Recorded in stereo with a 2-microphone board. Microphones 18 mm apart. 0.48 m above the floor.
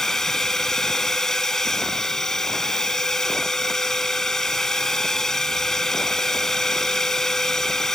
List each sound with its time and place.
0.0 s a drone: 30° left (ahead or behind)